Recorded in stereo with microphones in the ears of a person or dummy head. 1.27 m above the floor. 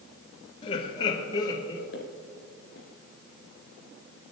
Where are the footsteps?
55° left (ahead or behind), 2.5 m.